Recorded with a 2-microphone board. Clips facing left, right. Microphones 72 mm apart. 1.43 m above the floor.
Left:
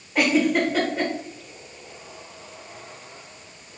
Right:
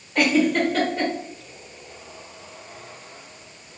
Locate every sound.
0.1 s a giggle: 10° left (ahead or behind), 0.9 m